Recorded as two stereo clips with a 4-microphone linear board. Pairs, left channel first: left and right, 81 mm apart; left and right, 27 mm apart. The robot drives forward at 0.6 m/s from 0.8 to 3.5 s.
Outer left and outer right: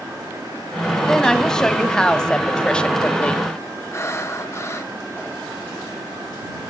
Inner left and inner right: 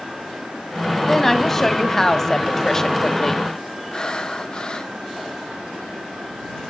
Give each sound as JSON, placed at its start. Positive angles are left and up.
{"t": 1.1, "sound": "a woman speaking", "side_deg": 10, "distance_m": 2.5}
{"t": 3.9, "sound": "breathing", "side_deg": 35, "distance_m": 1.4}